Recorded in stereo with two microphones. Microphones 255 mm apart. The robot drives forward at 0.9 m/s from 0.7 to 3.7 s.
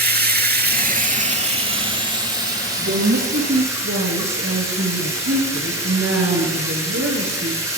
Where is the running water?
40° right (ahead or behind), 1.2 m; by 7.8 s 10° right (ahead or behind), 3.5 m.